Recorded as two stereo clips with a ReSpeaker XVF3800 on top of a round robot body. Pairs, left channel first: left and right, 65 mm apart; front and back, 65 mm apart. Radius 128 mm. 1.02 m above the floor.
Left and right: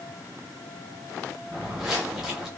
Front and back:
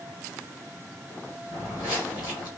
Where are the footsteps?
5° right, 1.7 m.